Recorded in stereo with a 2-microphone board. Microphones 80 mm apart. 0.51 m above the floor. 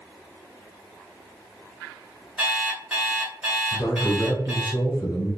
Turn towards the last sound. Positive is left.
turn(degrees=40)  # may be behind; listen again after turning